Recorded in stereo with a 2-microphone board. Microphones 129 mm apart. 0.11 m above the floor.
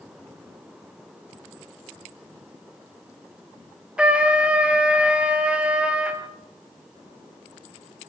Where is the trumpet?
10° right (ahead or behind), 2 m.